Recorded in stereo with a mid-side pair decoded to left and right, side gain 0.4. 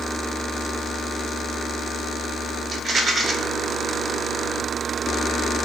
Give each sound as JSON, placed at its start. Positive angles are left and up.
{"t": 2.7, "sound": "a rattle", "azimuth_deg": -50, "distance_m": 0.6}